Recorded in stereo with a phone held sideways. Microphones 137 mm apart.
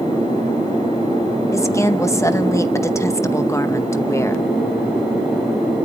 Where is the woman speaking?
20° left (ahead or behind), 0.9 m.